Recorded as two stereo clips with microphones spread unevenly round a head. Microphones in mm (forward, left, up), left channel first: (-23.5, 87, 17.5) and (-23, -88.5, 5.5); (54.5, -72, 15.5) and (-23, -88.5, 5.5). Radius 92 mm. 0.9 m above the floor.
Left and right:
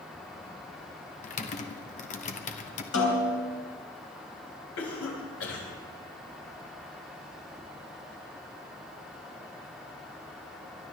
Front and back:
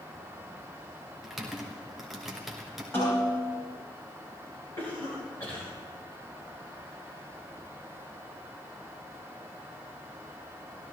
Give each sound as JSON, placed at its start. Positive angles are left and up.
{"t": 1.2, "sound": "typing on a keyboard", "azimuth_deg": 110, "distance_m": 1.1}
{"t": 2.9, "sound": "a snare drum", "azimuth_deg": 90, "distance_m": 3.5}
{"t": 4.8, "sound": "a cough", "azimuth_deg": 90, "distance_m": 5.5}